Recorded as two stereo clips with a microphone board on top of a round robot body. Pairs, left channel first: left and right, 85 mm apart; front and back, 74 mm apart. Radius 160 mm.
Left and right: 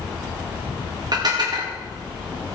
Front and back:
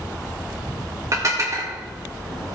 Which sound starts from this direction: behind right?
Dishes clattering, at 1.1 s.